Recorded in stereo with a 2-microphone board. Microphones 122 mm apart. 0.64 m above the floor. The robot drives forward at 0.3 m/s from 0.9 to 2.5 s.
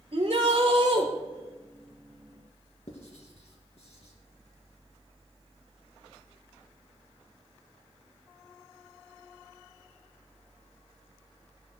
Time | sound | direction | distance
0.1 | a shout | 60° right (ahead or behind) | 2.5 m
2.9 | writing | 60° left (ahead or behind) | 2.5 m